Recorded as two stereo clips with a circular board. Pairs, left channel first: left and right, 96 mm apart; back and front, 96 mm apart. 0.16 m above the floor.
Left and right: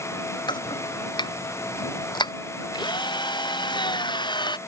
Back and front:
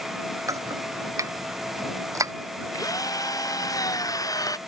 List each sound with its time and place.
0.5 s chopping: 55° left
2.7 s a drill: 125° left